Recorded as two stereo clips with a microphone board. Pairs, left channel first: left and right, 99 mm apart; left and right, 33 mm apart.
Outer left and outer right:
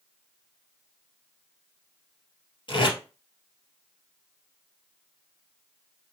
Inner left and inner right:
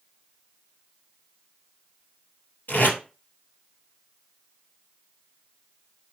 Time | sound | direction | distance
2.7 | tape being pulled | 55° left (ahead or behind) | 2.5 m